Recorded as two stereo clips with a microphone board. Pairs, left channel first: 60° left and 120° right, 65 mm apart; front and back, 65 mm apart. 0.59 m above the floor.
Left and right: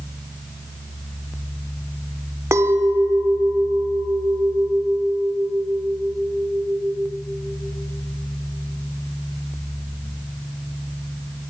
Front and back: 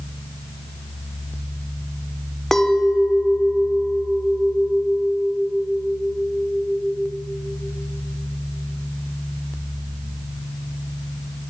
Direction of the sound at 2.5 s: 85° right.